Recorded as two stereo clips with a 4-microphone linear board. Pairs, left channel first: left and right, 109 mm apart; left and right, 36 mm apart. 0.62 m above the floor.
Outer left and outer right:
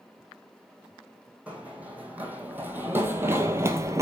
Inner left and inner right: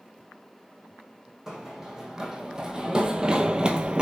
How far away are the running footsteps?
About 1.8 m.